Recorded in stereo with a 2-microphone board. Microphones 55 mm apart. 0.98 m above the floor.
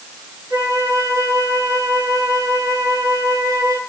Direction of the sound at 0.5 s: 75° right (ahead or behind).